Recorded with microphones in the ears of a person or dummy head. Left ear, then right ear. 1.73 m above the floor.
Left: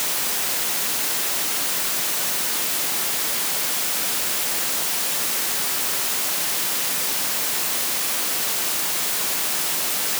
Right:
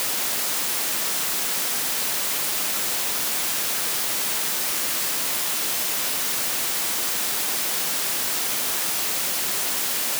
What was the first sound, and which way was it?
Only background noise.